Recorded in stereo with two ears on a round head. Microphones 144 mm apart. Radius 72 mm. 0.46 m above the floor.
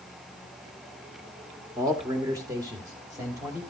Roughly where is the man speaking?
Right.